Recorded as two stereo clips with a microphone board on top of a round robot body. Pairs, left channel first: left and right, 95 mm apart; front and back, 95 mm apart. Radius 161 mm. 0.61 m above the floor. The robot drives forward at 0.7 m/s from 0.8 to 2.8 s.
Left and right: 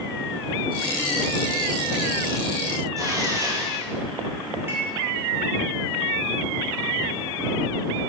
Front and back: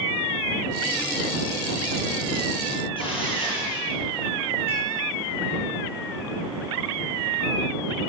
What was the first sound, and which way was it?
Tearing paper, 35° right.